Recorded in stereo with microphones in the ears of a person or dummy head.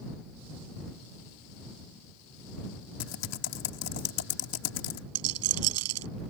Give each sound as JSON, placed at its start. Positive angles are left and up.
{"t": 3.0, "sound": "typing on a keyboard", "side_deg": 75}
{"t": 5.2, "sound": "a rattle", "side_deg": -85}